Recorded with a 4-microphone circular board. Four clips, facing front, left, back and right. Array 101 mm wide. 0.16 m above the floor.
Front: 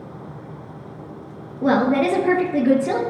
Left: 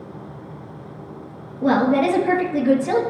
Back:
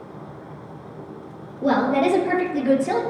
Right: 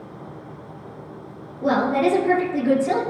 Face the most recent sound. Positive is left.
turn(degrees=-5)